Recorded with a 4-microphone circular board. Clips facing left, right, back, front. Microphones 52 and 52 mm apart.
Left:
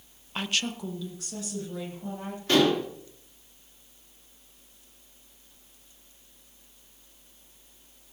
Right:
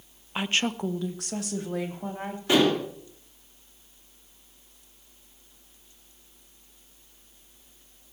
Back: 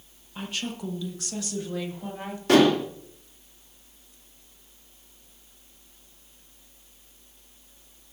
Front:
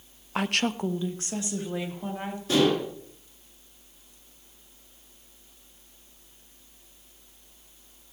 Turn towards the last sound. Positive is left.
turn(degrees=-165)